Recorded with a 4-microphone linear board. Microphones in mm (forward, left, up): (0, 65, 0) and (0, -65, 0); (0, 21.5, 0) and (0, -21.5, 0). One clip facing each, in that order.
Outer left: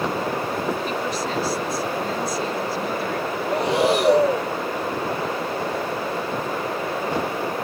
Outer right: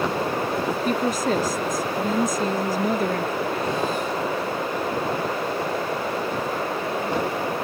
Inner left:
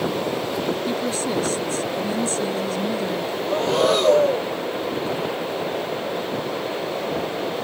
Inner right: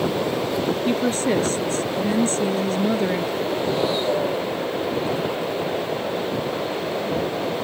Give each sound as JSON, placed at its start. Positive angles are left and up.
{"t": 0.8, "sound": "a woman speaking", "side_deg": -45}
{"t": 3.5, "sound": "breathing", "side_deg": 90}